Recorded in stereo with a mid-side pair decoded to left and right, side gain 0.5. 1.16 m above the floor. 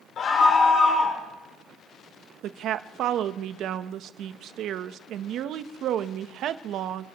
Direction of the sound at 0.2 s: 50° left.